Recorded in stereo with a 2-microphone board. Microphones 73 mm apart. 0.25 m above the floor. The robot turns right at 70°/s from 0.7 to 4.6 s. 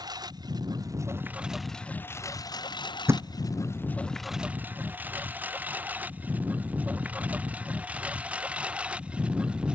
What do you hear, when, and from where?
0.0 s a lawn mower: 65° right (ahead or behind); by 9.8 s 15° right (ahead or behind)
3.1 s a thud: 35° right (ahead or behind); by 3.3 s 50° right (ahead or behind)